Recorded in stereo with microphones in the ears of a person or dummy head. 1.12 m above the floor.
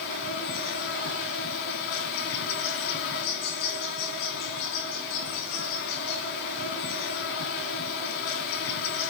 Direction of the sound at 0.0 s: 60° left (ahead or behind).